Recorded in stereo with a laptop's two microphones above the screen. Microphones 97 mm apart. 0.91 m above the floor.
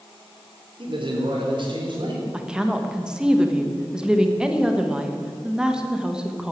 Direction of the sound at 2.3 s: 10° right (ahead or behind).